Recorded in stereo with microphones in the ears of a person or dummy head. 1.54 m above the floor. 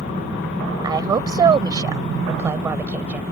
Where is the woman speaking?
15° right (ahead or behind); by 3.2 s 5° right (ahead or behind).